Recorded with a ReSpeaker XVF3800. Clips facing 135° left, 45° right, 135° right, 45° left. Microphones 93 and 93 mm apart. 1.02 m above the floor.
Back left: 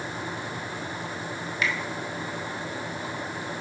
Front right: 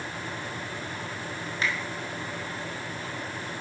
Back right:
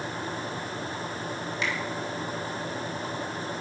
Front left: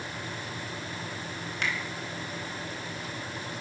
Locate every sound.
1.6 s a finger snap: 10° left, 1.4 m